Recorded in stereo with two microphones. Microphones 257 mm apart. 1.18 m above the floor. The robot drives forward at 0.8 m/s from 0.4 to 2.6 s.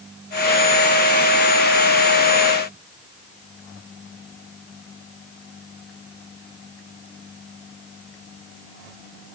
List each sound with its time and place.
Only background noise.